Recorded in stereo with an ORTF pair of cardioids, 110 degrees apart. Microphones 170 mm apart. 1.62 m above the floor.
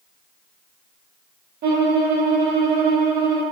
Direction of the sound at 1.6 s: 60° right.